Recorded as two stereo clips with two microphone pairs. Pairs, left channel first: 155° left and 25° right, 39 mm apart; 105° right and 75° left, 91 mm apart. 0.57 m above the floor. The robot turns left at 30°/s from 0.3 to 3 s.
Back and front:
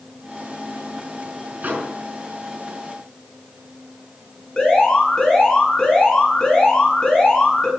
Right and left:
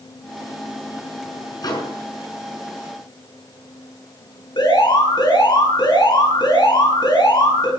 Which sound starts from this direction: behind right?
An alarm, at 4.6 s.